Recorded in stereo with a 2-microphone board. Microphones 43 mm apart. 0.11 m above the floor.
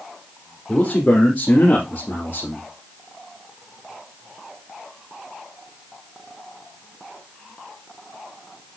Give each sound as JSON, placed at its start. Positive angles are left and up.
{"t": 0.7, "sound": "a man speaking", "side_deg": 30, "distance_m": 3.5}